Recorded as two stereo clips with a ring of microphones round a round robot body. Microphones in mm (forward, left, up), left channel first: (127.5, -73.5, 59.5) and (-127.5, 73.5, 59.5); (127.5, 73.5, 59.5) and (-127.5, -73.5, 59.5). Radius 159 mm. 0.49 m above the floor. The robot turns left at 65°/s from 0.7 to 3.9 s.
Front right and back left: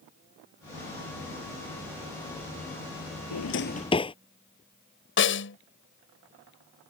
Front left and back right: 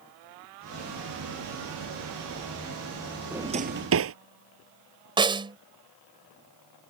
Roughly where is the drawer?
Ahead right.